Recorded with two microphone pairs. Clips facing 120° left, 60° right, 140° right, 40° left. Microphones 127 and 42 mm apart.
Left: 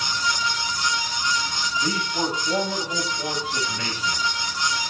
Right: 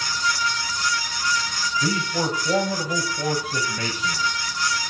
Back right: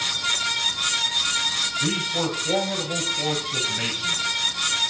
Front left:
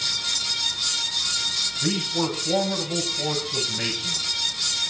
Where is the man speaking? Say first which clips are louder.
Right 2 dB, front left 2 dB; 80° right, 7.5 m.